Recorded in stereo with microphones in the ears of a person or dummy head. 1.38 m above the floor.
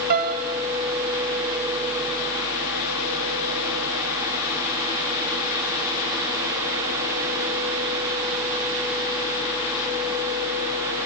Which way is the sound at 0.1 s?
45° right (ahead or behind).